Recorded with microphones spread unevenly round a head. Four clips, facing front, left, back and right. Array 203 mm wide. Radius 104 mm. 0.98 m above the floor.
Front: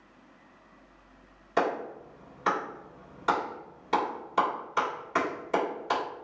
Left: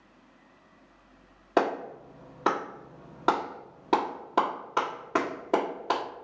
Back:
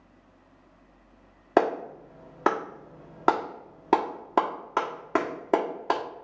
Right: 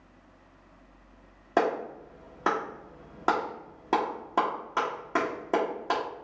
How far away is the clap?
About 1.3 m.